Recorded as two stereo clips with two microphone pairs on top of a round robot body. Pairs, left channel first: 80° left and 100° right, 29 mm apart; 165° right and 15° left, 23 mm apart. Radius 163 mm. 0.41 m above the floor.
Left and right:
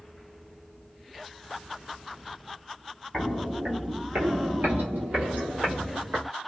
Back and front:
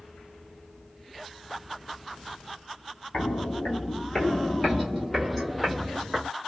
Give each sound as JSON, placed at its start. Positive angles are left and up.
{"t": 3.1, "sound": "footsteps", "azimuth_deg": 175, "distance_m": 0.7}